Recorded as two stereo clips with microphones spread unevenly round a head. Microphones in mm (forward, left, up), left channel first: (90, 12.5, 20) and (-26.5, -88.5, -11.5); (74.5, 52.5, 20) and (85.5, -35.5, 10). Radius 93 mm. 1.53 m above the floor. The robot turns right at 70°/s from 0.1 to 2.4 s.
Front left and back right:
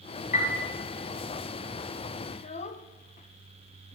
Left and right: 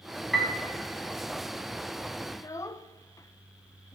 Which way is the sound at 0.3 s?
10° left.